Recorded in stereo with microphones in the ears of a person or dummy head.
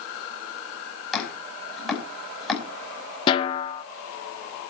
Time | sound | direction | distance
1.1 | chopping | centre (ahead or behind) | 5 m
3.3 | a snare drum | 25° left (ahead or behind) | 0.8 m